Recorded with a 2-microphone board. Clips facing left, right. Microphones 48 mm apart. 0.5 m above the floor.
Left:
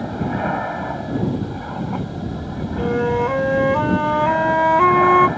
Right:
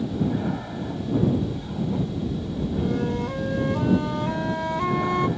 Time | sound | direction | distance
0.0 | an aircraft | 50° left (ahead or behind) | ?
2.8 | a flute | 50° left (ahead or behind) | ?